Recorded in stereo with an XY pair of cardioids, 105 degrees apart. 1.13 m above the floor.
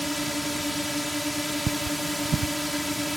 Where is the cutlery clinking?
45° right.